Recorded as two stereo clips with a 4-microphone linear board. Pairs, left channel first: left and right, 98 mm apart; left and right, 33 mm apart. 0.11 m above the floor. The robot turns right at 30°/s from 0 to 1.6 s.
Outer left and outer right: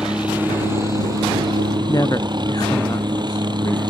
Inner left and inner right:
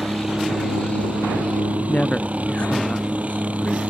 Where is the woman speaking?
40° left (ahead or behind).